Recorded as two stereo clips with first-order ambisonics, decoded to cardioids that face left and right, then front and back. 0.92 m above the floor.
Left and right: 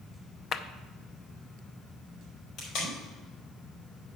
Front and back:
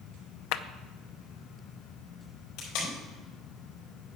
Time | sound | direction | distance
0.5 | a clap | 25° left | 0.5 m
2.6 | tape being pulled | 35° left | 4.5 m